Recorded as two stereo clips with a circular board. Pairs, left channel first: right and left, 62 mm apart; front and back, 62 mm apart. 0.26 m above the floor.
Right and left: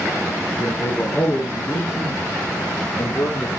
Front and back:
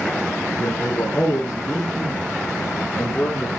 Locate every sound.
0.6 s a man speaking: 50° right, 2.5 m; by 3.5 s 90° right, 6.5 m